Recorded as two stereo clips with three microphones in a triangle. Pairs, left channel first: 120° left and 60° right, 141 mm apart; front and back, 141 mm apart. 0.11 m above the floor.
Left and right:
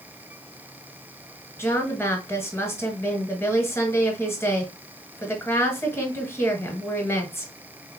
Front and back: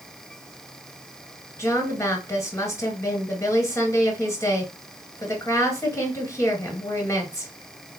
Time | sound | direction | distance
1.6 | a woman speaking | 55° left | 1.4 m